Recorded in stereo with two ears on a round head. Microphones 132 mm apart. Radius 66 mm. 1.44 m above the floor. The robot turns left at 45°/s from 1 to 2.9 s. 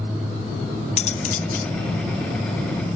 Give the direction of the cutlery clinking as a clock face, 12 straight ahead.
8 o'clock.